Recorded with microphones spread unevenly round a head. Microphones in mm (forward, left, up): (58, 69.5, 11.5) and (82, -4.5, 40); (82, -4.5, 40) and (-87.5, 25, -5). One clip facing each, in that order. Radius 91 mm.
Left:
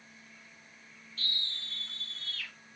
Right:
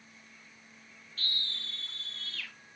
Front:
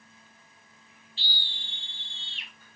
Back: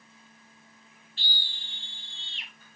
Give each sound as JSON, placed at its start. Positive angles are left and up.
{"t": 1.2, "sound": "a scream", "azimuth_deg": -145, "distance_m": 0.7}